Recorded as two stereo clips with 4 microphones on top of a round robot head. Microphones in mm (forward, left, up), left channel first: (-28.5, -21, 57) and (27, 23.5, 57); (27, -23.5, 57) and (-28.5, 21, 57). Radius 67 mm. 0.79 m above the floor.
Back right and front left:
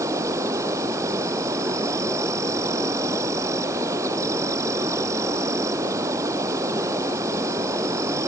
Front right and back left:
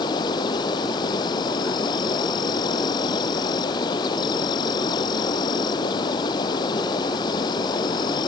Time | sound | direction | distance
0.0 | an insect | 10° right | ?